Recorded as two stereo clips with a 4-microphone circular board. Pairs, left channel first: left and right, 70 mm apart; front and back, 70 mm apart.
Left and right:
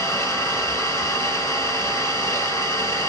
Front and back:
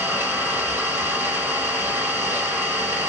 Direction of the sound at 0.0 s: 135° left.